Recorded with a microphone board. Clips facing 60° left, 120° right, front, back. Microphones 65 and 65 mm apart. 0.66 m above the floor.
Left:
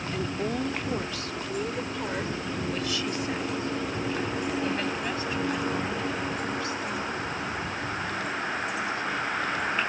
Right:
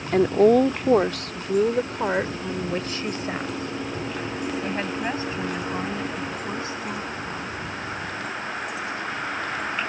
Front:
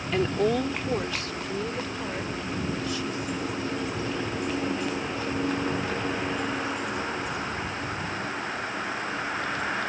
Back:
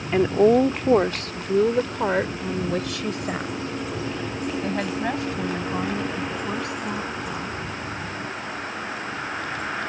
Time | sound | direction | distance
0.1 | a woman speaking | 115° right | ?